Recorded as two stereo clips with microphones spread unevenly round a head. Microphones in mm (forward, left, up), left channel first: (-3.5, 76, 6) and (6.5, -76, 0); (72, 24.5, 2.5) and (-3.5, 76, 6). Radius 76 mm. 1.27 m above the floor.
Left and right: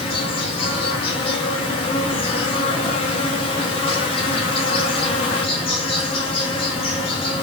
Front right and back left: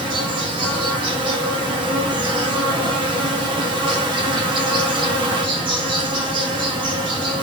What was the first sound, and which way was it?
An insect, 140° left.